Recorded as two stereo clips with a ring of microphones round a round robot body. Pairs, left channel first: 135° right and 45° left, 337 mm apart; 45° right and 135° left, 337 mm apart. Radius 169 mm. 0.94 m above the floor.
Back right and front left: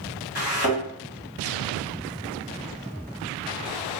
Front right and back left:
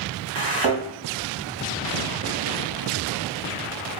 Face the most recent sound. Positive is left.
turn(degrees=160)